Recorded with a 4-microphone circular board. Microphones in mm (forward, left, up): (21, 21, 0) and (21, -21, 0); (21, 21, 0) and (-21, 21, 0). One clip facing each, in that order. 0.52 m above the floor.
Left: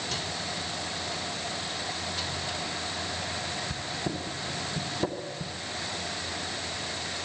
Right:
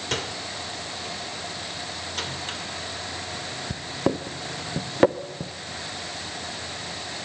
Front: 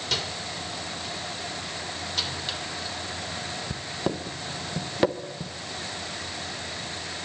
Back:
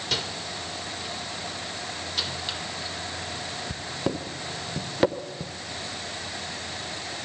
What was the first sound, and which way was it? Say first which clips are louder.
A microwave: right 3 dB, even; 95° right.